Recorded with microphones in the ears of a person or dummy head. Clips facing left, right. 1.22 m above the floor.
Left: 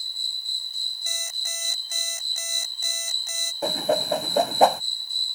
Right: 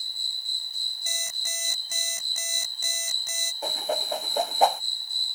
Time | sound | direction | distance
0.0 | an insect | 85° left | ?
1.1 | an alarm clock | 75° right (ahead or behind) | ?
3.6 | a whoosh | 55° left (ahead or behind) | ?